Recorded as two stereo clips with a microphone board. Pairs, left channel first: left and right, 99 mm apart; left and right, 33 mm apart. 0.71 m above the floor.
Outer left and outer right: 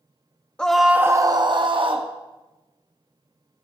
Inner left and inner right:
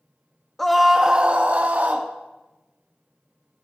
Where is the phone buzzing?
No phone buzzing in this recording.